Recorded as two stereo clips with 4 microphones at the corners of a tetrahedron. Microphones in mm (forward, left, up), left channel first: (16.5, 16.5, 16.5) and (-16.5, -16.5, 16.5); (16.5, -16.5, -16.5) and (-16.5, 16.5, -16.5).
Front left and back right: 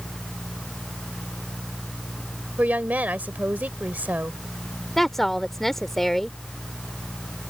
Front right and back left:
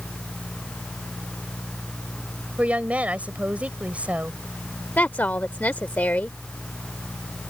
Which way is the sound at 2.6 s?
175° right.